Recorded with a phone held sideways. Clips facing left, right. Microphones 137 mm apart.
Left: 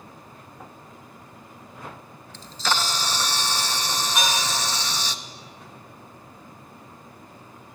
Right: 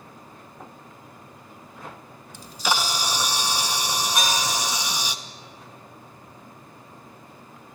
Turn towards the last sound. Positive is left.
turn(degrees=0)  # may be behind; listen again after turning